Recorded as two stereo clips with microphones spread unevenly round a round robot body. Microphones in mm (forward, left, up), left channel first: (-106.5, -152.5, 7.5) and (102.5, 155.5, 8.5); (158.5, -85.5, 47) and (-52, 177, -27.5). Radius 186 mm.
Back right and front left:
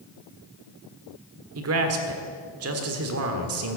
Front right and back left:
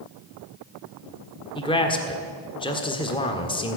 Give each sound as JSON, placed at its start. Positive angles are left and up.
{"t": 1.6, "sound": "a man speaking", "azimuth_deg": 30, "distance_m": 1.6}